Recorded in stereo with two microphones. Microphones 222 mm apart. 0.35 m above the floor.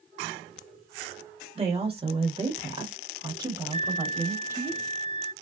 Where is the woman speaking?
25° right (ahead or behind), 1.1 m; by 4.7 s 10° right (ahead or behind), 1.7 m.